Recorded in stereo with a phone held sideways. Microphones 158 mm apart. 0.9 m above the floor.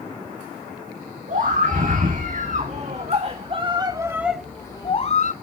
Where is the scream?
55° right (ahead or behind), 3 m; by 5.3 s 50° left (ahead or behind), 0.9 m.